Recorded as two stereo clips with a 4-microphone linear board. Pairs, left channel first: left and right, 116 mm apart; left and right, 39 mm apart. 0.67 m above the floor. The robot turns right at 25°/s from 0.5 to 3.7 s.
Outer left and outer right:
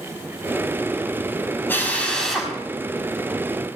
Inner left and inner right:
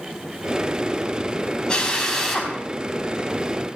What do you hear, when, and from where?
1.7 s a drill: 20° left (ahead or behind), 5 m; by 2.5 s 5° right (ahead or behind), 5 m